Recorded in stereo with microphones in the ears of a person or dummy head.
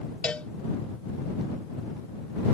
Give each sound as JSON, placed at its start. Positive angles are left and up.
{"t": 0.2, "sound": "a cowbell", "side_deg": 5}